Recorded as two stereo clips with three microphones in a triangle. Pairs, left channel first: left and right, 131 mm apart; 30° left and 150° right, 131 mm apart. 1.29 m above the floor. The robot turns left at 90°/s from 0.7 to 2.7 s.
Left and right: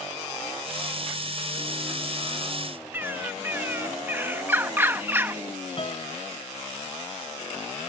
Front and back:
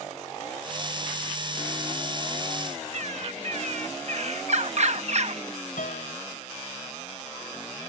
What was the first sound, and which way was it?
A bird, 165° right.